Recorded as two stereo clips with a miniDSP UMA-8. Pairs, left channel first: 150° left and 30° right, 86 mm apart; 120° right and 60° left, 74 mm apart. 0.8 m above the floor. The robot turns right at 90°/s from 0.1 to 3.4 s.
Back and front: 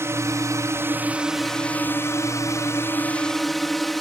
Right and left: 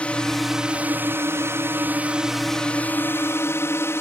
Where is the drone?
60° right; by 4.0 s 120° right.